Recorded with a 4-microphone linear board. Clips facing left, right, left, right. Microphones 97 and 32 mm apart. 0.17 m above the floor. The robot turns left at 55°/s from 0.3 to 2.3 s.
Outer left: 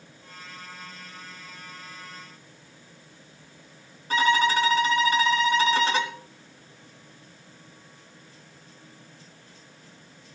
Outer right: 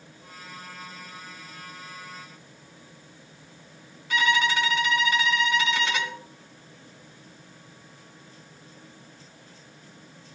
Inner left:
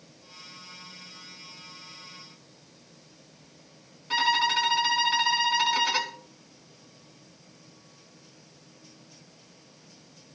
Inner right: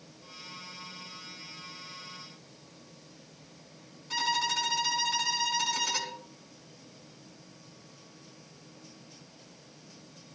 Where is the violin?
35° left (ahead or behind), 1.4 m.